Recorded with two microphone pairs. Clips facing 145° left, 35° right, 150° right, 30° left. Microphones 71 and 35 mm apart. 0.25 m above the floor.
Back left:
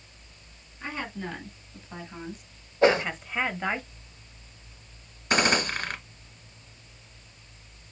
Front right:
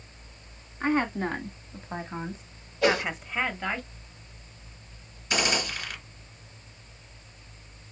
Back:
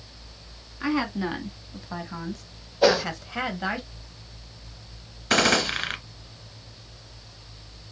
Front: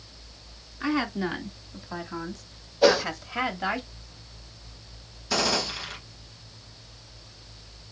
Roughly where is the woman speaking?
Ahead right.